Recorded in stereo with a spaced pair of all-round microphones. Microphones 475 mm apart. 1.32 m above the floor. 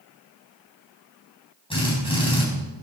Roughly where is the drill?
Centre.